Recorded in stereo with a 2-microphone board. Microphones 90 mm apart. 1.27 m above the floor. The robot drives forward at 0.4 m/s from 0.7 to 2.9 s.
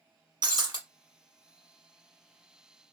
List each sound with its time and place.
0.4 s breaking glass: 50° right (ahead or behind), 0.9 m